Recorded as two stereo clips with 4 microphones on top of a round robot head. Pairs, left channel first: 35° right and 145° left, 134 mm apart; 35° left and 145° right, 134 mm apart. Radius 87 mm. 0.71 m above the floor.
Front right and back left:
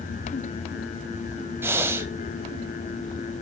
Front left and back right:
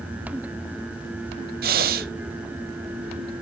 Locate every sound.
1.6 s breathing: 140° right, 0.7 m